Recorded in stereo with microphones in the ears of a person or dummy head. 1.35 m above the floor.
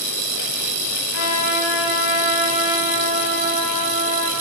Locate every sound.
1.1 s a trumpet: 70° left (ahead or behind), 3 m